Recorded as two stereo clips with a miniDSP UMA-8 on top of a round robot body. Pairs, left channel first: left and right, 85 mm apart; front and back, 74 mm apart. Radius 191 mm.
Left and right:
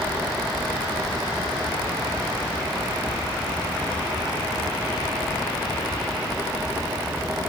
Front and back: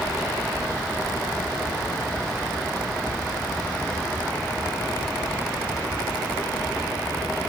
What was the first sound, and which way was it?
Only background noise.